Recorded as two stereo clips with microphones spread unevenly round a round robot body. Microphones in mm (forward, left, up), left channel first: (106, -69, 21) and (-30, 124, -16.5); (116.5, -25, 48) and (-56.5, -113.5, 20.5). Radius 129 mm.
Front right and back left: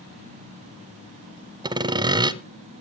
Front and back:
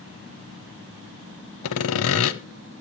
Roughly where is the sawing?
Ahead left.